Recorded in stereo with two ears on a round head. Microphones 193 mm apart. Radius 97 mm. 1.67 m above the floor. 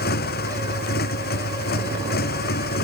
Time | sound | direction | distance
0.0 | a motorcycle | 45° left (ahead or behind) | ?